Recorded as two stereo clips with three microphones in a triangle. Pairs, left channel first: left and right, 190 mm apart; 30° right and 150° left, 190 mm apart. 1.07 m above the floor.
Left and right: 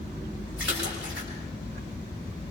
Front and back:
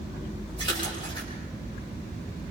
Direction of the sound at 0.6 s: 95° right.